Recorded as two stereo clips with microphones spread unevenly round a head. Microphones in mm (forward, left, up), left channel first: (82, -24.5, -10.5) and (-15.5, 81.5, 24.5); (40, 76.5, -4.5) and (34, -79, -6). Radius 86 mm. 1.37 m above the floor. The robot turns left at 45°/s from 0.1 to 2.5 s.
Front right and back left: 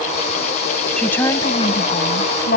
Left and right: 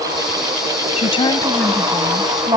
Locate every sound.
1.0 s a woman speaking: 40° left; by 2.6 s 30° right